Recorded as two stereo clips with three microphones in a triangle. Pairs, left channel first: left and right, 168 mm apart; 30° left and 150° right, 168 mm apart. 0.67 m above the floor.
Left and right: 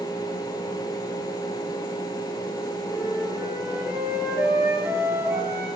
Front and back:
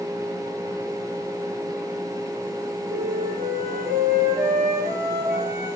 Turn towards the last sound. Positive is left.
turn(degrees=-170)